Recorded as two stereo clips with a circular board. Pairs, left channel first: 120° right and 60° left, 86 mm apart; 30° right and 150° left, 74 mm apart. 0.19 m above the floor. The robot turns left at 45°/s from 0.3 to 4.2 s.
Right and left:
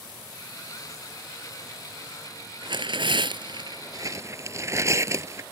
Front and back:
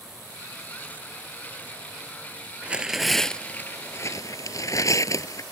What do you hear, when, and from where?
2.6 s tearing paper: 80° left; by 5.4 s 10° left